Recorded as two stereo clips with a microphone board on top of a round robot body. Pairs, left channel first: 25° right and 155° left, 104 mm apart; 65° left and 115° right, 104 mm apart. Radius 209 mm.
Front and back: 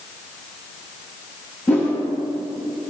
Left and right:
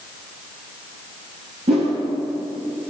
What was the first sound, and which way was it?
A whoosh, 100° right.